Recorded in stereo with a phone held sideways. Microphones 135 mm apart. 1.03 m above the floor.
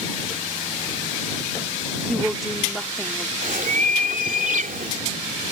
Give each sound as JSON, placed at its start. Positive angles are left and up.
{"t": 2.1, "sound": "a woman speaking", "side_deg": 0}
{"t": 3.4, "sound": "a bird", "side_deg": -75}